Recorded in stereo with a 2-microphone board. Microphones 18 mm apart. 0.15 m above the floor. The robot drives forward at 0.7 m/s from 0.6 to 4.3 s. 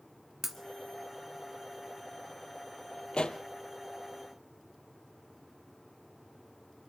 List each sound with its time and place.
0.4 s breaking glass: 10° right (ahead or behind), 1.3 m
3.1 s a pop: 70° left (ahead or behind), 1.1 m; by 3.4 s 60° left (ahead or behind), 1.2 m